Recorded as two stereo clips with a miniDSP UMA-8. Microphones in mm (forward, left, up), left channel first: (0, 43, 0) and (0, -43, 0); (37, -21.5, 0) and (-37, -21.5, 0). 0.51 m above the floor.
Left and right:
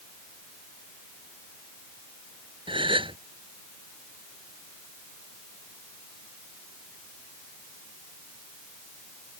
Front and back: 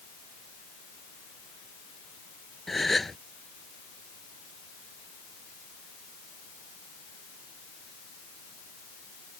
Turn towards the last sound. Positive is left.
turn(degrees=-90)